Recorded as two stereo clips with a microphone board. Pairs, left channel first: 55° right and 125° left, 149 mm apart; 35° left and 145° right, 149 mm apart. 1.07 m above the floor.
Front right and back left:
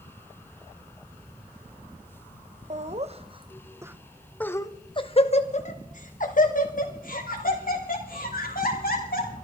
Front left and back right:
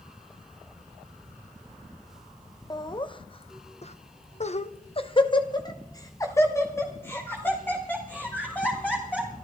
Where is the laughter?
95° left, 1.2 m; by 9.3 s 45° right, 3 m.